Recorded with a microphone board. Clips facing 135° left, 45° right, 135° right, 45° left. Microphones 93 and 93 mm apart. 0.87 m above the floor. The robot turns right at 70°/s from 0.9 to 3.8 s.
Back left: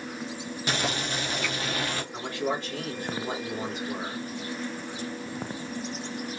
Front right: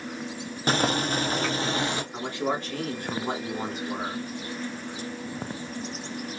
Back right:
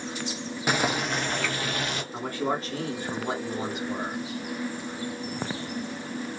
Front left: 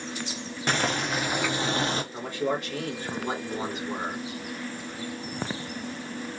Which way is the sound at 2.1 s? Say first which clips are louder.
Back left 1 dB, even; 125° right.